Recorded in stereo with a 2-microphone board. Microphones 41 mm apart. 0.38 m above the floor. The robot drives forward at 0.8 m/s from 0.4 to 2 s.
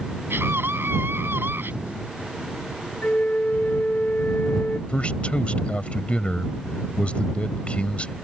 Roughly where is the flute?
Left.